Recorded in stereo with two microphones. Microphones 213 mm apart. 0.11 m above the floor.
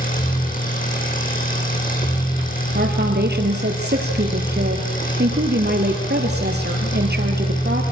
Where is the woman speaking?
50° right (ahead or behind), 3 m.